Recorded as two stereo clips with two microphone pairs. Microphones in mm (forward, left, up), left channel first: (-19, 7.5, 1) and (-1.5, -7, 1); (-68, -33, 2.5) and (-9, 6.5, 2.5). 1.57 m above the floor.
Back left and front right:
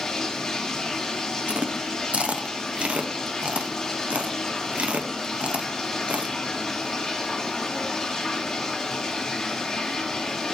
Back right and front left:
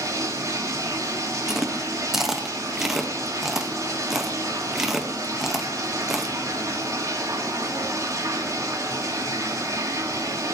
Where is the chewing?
55° right, 1.1 m.